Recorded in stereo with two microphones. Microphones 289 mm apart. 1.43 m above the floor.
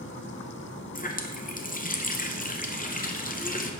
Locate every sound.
0.9 s a running tap: 30° left (ahead or behind), 0.6 m